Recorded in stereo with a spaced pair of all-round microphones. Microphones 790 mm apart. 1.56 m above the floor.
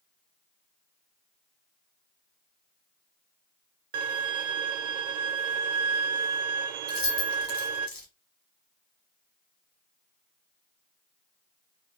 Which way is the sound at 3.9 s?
70° right (ahead or behind).